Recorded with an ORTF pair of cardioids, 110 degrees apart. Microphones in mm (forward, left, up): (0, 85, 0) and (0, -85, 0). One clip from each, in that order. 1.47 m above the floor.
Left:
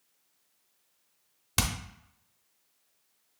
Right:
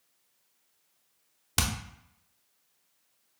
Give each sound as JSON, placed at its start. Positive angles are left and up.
{"t": 1.6, "sound": "hammering", "azimuth_deg": 0, "distance_m": 0.8}